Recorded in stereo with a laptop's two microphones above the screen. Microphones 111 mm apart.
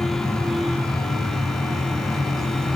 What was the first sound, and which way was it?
A fan, 5° left (ahead or behind).